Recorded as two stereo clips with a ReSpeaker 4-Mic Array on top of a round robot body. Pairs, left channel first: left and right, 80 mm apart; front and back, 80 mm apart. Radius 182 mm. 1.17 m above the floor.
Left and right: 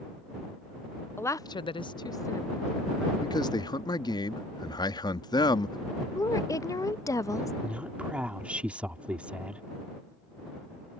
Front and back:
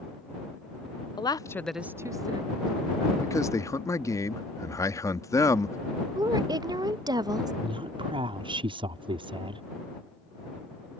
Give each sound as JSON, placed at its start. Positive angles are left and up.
{"t": 1.2, "sound": "a woman speaking", "azimuth_deg": 30}
{"t": 3.2, "sound": "a man speaking", "azimuth_deg": 50}
{"t": 6.2, "sound": "a woman speaking", "azimuth_deg": 140}
{"t": 7.6, "sound": "a woman speaking", "azimuth_deg": -165}